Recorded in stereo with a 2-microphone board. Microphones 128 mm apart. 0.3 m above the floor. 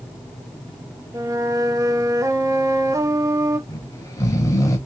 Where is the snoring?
25° left (ahead or behind), 1.1 m.